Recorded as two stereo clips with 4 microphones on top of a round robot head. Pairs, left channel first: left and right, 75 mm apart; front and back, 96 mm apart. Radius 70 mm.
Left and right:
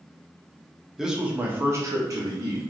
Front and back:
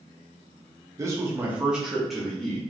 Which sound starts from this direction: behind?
A man speaking, at 1.0 s.